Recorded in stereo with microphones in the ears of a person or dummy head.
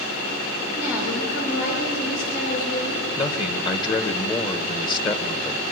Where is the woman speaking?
85° left, 7.5 m.